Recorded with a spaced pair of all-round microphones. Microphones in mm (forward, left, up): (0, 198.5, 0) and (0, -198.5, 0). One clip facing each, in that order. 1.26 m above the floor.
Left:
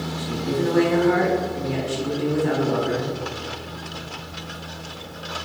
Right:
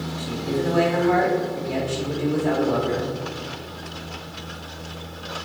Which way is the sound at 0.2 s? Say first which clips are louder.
Left 1 dB; 30° left (ahead or behind).